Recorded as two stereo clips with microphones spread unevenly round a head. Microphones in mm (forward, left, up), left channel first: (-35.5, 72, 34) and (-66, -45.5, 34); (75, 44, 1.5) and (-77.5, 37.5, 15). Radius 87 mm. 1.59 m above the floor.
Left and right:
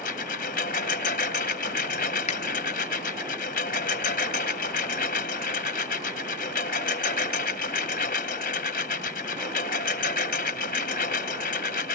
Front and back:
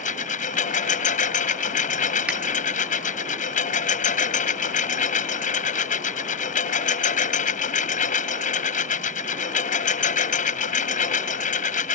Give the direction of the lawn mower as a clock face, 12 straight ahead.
11 o'clock.